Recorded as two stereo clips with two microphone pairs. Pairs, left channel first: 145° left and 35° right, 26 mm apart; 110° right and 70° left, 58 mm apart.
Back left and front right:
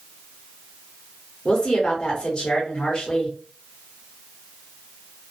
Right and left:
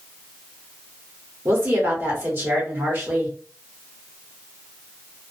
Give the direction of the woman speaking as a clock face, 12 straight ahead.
9 o'clock.